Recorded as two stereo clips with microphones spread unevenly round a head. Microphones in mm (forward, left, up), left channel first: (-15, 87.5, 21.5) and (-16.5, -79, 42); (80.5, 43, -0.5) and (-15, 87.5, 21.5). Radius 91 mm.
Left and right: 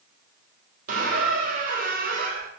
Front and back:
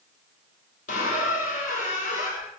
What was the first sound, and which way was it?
A squeak, 50° right.